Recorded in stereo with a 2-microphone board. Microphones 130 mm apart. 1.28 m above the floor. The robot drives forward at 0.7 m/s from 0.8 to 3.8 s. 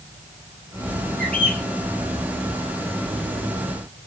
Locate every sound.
1.2 s a bird: 10° left (ahead or behind), 9.5 m